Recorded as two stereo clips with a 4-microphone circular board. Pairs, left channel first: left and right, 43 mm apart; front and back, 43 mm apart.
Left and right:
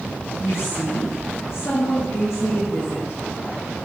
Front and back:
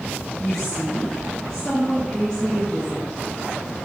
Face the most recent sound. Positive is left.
turn(degrees=75)